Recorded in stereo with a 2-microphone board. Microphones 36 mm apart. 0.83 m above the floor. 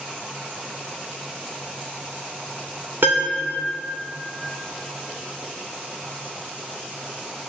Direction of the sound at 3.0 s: 80° right.